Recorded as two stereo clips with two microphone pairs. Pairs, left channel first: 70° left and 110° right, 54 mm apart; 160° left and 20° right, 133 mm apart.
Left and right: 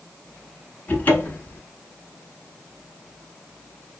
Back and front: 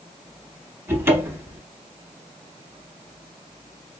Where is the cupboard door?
40° left, 1.1 m.